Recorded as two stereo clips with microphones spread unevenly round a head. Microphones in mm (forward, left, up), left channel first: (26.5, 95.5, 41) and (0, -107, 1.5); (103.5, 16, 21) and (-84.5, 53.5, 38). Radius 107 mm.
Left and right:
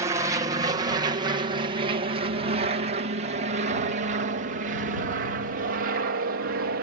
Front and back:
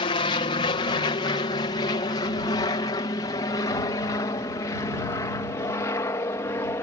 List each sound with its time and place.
0.0 s an aircraft: 50° right; by 6.8 s 85° right